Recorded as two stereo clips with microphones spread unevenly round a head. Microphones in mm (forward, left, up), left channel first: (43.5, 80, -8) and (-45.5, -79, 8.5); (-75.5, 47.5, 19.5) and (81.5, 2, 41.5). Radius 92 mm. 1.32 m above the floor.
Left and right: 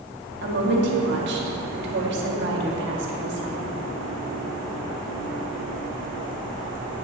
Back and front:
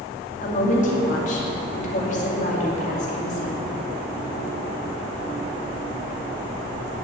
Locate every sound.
0.4 s a woman speaking: 145° right, 2 m